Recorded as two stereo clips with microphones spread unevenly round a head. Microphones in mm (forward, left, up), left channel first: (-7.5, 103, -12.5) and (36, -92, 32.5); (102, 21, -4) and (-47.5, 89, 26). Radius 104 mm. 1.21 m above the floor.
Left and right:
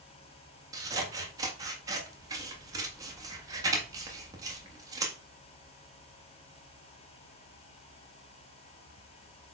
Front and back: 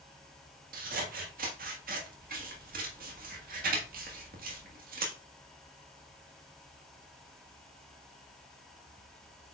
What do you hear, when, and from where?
0.7 s scissors: 150° right, 1.5 m